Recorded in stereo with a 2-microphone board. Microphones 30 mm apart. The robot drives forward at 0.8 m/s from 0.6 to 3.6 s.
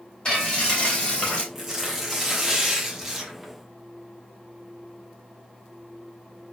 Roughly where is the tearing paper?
Centre.